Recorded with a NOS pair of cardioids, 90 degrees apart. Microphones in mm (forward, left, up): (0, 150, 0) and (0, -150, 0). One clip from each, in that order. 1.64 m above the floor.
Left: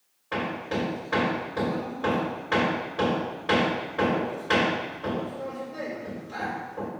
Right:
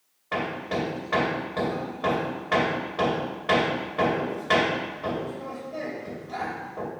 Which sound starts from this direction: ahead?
Hammering, at 0.3 s.